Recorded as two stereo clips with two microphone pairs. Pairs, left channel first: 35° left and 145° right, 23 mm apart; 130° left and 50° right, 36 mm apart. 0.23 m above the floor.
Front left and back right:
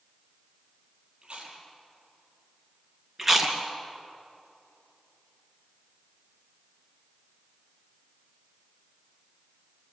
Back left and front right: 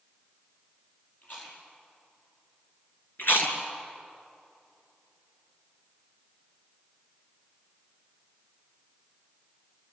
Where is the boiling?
No boiling in this recording.